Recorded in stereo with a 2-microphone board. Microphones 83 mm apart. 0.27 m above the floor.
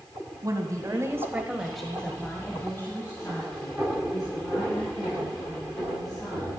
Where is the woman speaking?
45° right (ahead or behind), 2.0 m; by 6.5 s 45° left (ahead or behind), 8 m.